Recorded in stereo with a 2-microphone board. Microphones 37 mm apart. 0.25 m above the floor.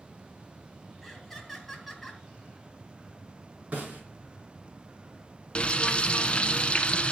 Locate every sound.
1.0 s laughter: centre (ahead or behind), 3.5 m
3.7 s a snare drum: 50° right (ahead or behind), 3.5 m
5.5 s frying: 30° left (ahead or behind), 0.8 m